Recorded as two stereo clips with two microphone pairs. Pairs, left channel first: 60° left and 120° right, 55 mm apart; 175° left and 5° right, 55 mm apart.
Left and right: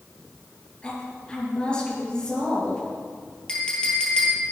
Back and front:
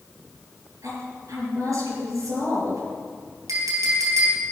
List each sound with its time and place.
0.8 s a woman speaking: 15° right, 5.5 m
3.5 s a clink: 15° right, 4 m